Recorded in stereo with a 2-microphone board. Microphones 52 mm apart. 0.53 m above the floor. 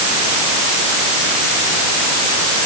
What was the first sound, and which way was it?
Only background noise.